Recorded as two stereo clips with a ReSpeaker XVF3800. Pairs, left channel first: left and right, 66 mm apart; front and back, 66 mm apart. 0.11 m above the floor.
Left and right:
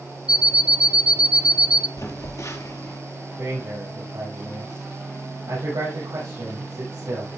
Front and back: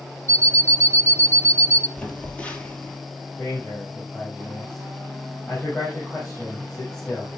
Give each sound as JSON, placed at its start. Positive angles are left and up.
{"t": 0.3, "sound": "an alarm clock", "azimuth_deg": -160, "distance_m": 0.8}
{"t": 2.0, "sound": "a phone buzzing", "azimuth_deg": 70, "distance_m": 2.0}
{"t": 3.4, "sound": "a man speaking", "azimuth_deg": -75, "distance_m": 5.5}